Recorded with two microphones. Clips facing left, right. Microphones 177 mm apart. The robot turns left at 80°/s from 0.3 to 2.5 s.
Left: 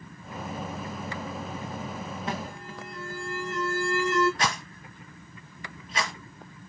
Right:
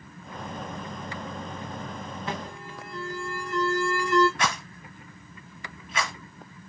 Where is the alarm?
25° left (ahead or behind), 1.4 m; by 4.3 s 40° left (ahead or behind), 1.4 m.